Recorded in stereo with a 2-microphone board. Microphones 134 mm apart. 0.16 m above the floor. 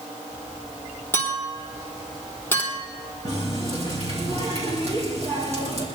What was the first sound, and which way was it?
A clink, 15° left (ahead or behind).